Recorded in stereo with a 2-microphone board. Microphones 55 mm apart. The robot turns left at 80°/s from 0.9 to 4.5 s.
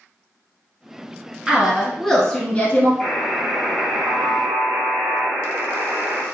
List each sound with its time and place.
1.5 s a woman speaking: 15° right (ahead or behind), 1.2 m; by 2.9 s 30° left (ahead or behind), 1.2 m
3.0 s a buzzer: 25° left, 1.9 m; by 6.2 s 95° right, 1.9 m